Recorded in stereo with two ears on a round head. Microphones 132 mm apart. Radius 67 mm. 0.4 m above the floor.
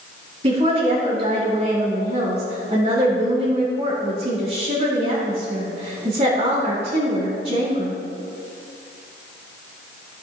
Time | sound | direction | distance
0.4 | a woman speaking | 40° right (ahead or behind) | 3.5 m